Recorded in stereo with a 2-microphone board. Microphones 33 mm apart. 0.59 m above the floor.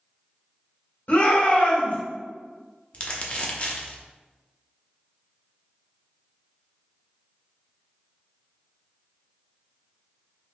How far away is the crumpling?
About 0.6 m.